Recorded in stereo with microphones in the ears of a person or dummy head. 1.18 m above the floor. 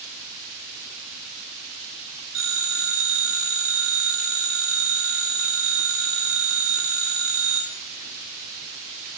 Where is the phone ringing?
80° right, 0.6 m.